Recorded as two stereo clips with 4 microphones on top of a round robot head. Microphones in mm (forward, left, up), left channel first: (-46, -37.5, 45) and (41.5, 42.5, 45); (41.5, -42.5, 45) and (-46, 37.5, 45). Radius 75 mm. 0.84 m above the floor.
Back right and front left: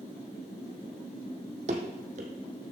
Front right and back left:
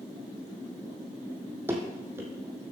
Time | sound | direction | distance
1.7 | running footsteps | 65° left | 1.4 m